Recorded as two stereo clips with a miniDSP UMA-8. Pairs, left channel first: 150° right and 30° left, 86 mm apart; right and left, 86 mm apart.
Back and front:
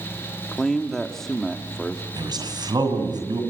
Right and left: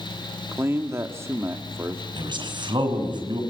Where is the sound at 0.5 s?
125° left, 1.4 m.